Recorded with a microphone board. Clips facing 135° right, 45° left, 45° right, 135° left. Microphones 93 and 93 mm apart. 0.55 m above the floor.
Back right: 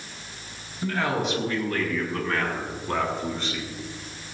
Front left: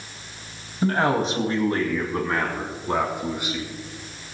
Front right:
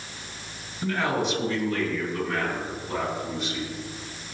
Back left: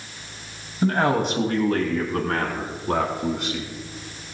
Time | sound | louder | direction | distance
0.8 | a man speaking | front left 5 dB, back left 5 dB | 90° left | 3.5 m